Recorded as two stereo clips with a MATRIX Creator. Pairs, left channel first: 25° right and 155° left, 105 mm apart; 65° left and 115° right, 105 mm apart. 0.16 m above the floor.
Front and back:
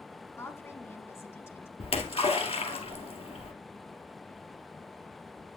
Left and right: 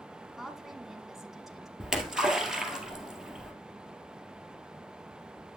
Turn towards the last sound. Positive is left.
turn(degrees=-30)